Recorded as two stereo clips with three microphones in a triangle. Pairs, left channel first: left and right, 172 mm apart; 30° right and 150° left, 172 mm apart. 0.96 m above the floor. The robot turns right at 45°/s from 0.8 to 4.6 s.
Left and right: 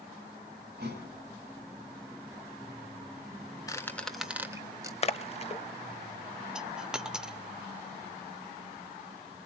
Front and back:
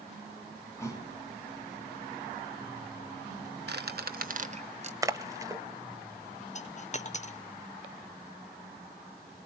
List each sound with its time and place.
0.8 s a thud: 105° right, 4 m; by 1.1 s 90° right, 4 m
3.7 s a squeak: 160° left, 0.9 m; by 4.9 s 160° right, 0.9 m
5.0 s a splash: 95° left, 0.8 m
6.5 s a dropped coin: 5° right, 0.9 m